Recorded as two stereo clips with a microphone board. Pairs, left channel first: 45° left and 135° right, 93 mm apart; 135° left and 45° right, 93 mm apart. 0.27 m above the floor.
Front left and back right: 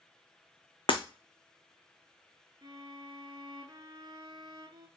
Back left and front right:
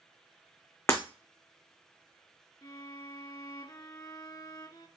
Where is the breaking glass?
75° left, 1.0 m.